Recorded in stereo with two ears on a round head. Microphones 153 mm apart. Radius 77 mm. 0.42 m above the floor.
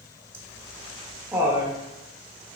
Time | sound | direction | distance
0.3 | laughter | 15° right (ahead or behind) | 0.7 m